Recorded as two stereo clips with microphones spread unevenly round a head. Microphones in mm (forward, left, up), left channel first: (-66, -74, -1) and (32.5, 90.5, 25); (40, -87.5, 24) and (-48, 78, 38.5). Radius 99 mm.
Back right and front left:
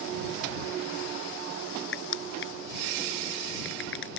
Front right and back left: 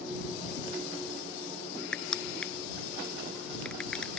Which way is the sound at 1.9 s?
150° right.